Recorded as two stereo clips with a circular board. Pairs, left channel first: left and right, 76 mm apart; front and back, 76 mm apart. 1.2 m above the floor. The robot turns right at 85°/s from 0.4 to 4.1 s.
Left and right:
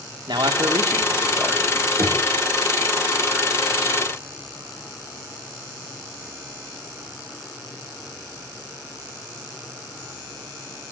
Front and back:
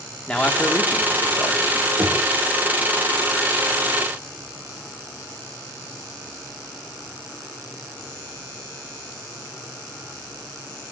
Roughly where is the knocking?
Behind right.